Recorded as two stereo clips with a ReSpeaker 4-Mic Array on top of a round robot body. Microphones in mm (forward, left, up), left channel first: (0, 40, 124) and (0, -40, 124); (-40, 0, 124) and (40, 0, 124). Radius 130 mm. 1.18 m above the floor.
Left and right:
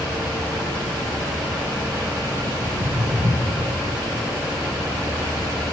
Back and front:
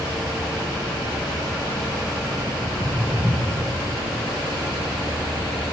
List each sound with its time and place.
2.6 s footsteps: 80° right, 9.5 m; by 3.6 s 75° right, 9.5 m